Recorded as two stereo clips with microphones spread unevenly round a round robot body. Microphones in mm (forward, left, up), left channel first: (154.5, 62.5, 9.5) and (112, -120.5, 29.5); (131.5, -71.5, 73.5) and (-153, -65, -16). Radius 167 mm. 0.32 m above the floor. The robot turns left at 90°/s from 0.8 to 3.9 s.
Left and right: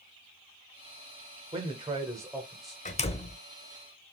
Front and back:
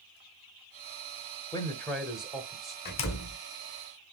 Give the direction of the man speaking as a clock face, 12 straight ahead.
4 o'clock.